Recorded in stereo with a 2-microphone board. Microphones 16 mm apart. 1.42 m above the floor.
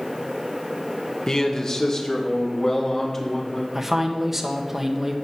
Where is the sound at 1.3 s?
40° left (ahead or behind), 1.8 m; by 3.6 s 30° left (ahead or behind), 3.5 m.